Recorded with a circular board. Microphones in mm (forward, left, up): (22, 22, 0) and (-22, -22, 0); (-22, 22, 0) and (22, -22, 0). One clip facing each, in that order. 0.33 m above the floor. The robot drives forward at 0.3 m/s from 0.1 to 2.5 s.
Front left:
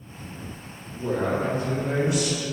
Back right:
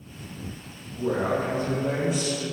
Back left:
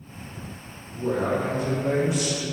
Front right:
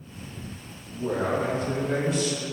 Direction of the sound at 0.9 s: 110° right.